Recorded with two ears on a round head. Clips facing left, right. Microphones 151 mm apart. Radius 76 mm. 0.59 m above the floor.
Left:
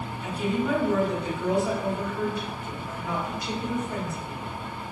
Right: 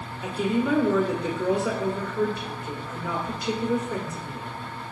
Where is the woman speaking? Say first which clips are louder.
Right 2 dB; 60° right (ahead or behind), 1.4 m.